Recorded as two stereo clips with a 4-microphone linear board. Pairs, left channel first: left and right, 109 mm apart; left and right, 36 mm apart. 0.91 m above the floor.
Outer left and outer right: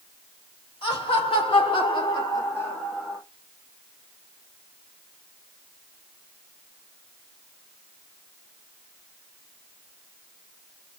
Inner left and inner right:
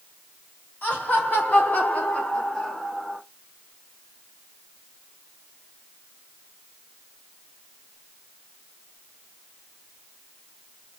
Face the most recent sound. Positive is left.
turn(degrees=0)  # may be behind; listen again after turning